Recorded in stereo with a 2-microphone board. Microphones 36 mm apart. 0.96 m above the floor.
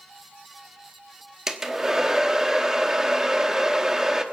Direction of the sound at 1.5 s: 15° right (ahead or behind).